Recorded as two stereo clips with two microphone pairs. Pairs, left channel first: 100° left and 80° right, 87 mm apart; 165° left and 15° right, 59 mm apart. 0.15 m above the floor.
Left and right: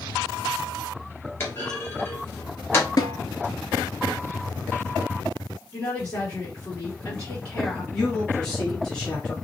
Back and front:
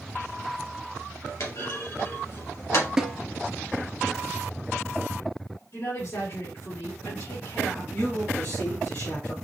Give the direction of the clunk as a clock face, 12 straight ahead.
7 o'clock.